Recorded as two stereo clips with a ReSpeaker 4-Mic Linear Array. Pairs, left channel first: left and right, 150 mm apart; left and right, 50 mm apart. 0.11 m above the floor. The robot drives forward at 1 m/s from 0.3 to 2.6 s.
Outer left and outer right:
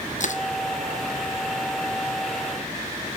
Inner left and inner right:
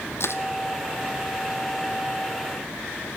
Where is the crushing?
60° left (ahead or behind), 1.1 m; by 0.4 s 65° left (ahead or behind), 1.1 m.